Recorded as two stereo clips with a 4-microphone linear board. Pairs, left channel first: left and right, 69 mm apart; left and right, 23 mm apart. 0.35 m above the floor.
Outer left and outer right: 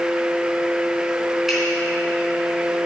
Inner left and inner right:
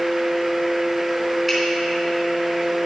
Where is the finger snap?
5° right (ahead or behind), 3.5 m.